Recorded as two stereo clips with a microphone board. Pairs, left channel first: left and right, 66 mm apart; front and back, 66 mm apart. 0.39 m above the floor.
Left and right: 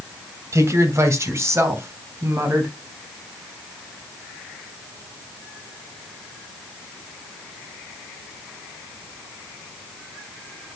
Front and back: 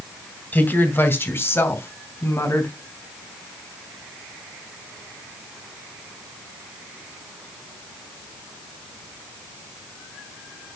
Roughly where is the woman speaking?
Ahead right.